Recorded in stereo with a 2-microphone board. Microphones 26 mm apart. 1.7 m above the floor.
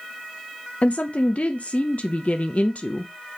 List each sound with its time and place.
0.8 s a woman speaking: 60° left (ahead or behind), 0.5 m